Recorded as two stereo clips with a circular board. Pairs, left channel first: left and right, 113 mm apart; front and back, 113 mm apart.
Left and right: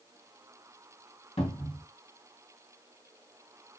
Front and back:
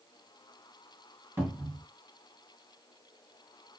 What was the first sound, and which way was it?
A cupboard door, 110° left.